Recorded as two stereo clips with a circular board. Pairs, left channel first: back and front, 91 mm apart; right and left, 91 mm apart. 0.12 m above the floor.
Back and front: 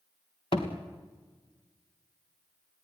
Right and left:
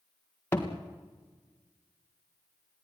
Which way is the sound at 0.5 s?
160° right.